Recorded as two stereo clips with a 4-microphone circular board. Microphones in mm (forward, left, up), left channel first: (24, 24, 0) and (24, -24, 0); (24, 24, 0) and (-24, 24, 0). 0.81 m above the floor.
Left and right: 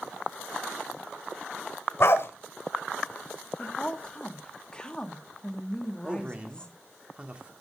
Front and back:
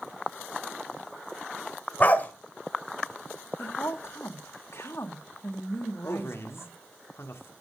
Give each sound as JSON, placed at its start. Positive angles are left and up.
{"t": 2.0, "sound": "a dog barking", "azimuth_deg": 55, "distance_m": 1.4}
{"t": 3.6, "sound": "a woman speaking", "azimuth_deg": 20, "distance_m": 1.5}
{"t": 6.0, "sound": "a man speaking", "azimuth_deg": -25, "distance_m": 1.8}